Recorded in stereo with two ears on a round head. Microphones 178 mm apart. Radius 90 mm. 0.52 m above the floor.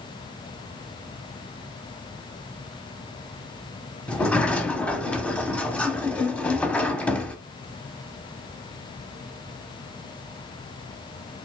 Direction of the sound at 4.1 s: 5° left (ahead or behind).